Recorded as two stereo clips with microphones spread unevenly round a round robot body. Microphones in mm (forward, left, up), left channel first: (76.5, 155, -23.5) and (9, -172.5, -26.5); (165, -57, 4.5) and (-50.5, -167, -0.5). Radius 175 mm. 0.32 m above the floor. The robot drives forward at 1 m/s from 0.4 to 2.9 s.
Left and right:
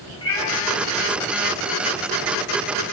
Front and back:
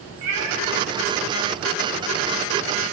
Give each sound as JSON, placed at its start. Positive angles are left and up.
{"t": 0.2, "sound": "a cat meowing", "azimuth_deg": 160, "distance_m": 9.0}